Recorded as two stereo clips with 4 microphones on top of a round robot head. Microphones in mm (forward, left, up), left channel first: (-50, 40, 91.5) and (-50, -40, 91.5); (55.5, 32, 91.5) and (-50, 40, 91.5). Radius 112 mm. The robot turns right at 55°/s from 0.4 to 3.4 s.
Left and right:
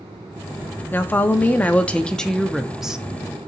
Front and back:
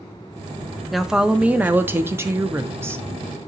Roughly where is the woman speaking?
Left.